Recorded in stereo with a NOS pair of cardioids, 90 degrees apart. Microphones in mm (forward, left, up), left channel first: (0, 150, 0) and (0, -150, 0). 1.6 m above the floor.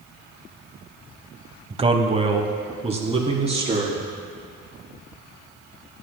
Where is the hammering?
I don't hear hammering.